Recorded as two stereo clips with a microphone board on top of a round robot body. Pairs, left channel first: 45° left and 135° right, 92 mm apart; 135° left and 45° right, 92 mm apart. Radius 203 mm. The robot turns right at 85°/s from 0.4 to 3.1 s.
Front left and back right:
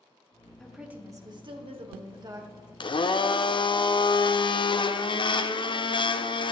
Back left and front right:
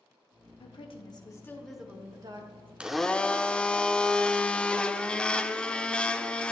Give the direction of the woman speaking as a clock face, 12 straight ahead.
8 o'clock.